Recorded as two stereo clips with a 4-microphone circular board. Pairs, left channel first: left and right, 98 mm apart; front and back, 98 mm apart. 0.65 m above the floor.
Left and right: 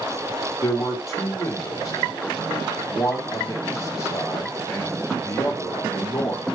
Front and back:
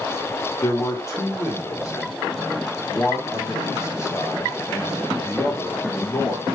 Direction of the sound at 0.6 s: 45° left.